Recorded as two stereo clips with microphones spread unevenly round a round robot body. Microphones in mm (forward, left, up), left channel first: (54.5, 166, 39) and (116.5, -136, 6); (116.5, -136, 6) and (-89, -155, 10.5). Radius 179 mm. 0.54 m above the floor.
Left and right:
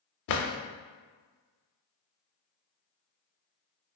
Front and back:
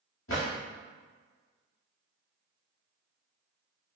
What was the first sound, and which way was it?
A drawer, 65° left.